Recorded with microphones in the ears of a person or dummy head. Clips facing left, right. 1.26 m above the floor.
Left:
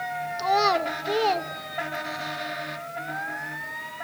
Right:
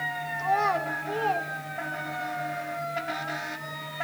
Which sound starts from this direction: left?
A child speaking, at 0.4 s.